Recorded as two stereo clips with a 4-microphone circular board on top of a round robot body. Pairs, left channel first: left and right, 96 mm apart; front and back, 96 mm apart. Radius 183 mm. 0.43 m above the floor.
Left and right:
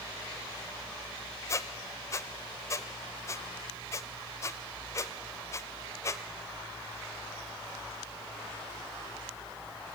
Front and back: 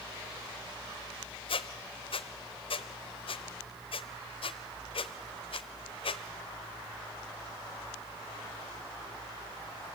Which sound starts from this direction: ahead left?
A squeak, at 1.5 s.